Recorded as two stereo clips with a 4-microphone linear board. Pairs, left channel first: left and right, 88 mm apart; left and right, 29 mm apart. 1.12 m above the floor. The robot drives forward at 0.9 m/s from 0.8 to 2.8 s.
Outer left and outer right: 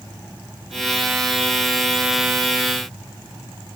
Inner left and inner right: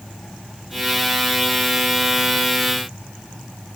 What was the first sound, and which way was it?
Only background noise.